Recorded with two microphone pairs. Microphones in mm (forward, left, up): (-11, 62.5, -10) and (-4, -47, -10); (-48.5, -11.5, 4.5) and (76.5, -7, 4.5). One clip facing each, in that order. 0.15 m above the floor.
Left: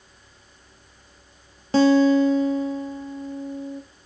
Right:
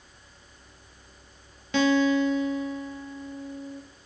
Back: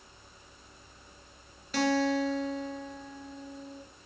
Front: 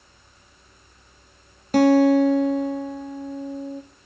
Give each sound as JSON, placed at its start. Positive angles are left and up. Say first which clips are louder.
{"t": 1.7, "sound": "a guitar", "louder": "left 6 dB, front 12 dB", "azimuth_deg": 40, "distance_m": 0.7}